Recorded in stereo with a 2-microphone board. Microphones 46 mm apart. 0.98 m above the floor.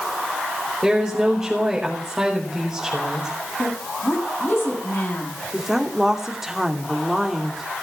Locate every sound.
0.8 s a woman speaking: 15° right (ahead or behind), 5 m
3.6 s a woman speaking: 55° left (ahead or behind), 7 m
5.5 s a woman speaking: 10° right (ahead or behind), 2.5 m